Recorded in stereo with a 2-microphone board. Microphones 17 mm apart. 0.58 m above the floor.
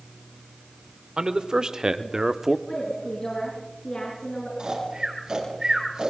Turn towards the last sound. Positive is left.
turn(degrees=-40)  # may be behind; listen again after turning